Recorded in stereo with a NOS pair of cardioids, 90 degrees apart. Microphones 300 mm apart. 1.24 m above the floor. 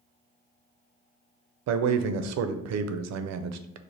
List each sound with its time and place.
1.7 s a man speaking: 60° right, 0.5 m